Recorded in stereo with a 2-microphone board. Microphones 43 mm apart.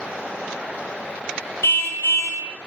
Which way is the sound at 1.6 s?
70° left (ahead or behind).